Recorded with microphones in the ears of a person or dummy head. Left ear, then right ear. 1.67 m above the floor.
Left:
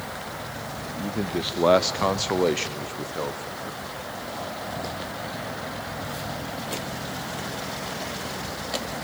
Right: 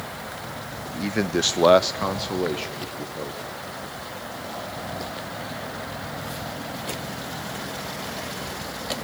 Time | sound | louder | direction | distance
0.8 | a man speaking | right 5 dB | 65° right (ahead or behind) | 0.8 m